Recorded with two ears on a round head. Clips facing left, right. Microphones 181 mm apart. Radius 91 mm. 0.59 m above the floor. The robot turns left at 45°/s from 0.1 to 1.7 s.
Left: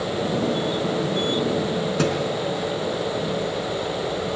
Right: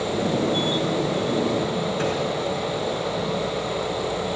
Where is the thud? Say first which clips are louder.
Left 4 dB; 55° left (ahead or behind), 3 m.